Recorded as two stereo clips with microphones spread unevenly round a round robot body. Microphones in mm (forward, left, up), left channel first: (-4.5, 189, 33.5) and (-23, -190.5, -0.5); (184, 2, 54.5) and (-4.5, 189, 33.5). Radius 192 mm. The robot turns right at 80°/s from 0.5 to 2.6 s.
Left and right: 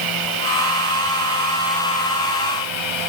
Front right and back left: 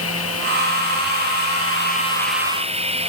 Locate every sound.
0.0 s running water: 100° right; by 3.1 s 70° left